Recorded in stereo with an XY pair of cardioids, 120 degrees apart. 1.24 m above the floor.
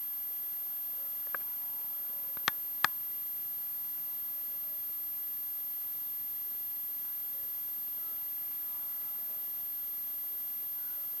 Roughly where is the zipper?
I don't hear a zipper.